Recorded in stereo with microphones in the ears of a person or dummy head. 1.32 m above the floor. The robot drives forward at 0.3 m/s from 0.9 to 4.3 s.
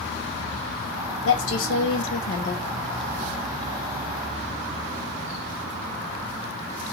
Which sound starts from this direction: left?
A woman speaking, at 1.2 s.